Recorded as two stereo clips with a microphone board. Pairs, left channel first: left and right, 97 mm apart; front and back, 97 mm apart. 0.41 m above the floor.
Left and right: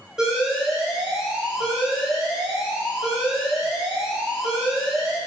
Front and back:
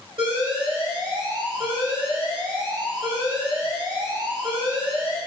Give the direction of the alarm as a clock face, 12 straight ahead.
6 o'clock.